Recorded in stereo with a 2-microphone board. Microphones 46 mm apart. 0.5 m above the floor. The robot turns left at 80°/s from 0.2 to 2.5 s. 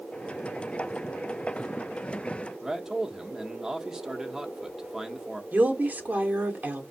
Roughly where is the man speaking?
Centre.